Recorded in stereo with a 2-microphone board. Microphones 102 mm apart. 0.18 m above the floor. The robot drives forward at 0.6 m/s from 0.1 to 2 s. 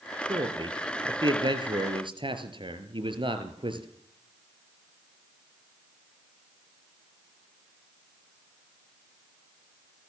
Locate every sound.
0.3 s a man speaking: 45° right (ahead or behind), 4.5 m; by 3.9 s 55° right (ahead or behind), 4 m